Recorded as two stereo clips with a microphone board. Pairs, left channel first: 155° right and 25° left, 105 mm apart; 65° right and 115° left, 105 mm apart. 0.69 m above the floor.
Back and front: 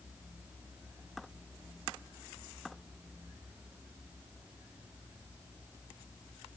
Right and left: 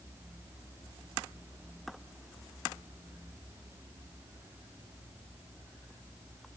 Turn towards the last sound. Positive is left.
No sound to turn to.